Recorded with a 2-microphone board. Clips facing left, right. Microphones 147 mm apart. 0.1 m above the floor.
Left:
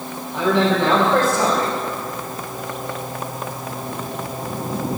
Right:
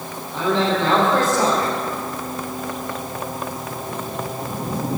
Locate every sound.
0.3 s a man speaking: 20° left (ahead or behind), 3.5 m